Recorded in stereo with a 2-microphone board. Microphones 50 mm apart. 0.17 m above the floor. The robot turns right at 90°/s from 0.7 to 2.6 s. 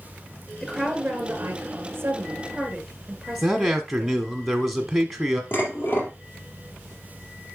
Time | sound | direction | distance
0.6 | a woman speaking | 175° right | 2.5 m
3.4 | a man speaking | 5° right (ahead or behind) | 1.0 m
5.5 | dishes clattering | 50° left (ahead or behind) | 3 m